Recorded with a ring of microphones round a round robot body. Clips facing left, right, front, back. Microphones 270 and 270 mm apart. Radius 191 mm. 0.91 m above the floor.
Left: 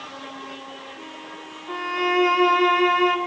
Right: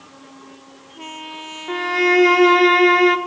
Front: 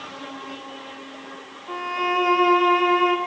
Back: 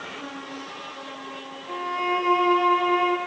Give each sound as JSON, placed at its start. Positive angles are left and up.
{"t": 1.7, "sound": "a violin", "azimuth_deg": -70, "distance_m": 1.2}